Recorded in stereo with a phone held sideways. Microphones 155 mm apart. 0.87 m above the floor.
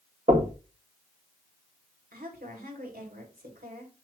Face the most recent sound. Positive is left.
turn(degrees=-70)  # may be behind; listen again after turning